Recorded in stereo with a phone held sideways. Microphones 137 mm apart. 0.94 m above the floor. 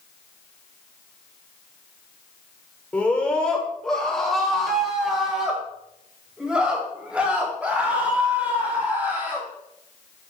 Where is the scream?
10° left (ahead or behind), 3 m; by 9.5 s 15° right (ahead or behind), 6 m.